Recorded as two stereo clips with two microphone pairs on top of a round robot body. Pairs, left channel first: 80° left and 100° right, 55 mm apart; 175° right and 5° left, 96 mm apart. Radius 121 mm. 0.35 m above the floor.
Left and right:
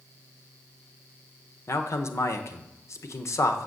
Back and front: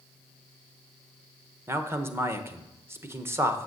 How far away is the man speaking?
About 1.3 m.